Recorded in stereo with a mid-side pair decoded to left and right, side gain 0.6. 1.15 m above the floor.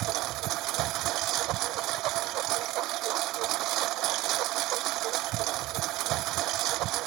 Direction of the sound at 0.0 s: 65° right.